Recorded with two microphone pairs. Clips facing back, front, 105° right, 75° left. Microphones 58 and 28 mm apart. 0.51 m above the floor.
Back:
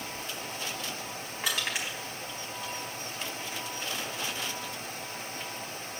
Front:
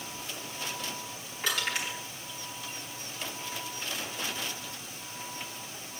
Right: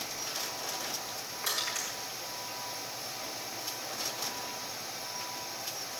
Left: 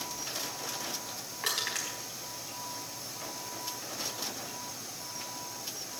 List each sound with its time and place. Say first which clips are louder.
1.4 s crushing: front 1 dB, left 1 dB; 105° left, 4.5 m